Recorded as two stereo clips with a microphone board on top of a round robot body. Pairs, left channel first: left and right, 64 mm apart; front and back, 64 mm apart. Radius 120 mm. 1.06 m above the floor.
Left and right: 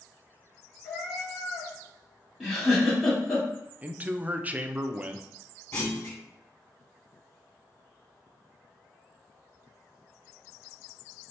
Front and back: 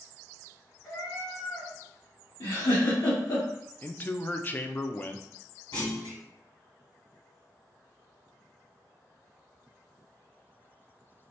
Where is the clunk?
25° left, 2.0 m.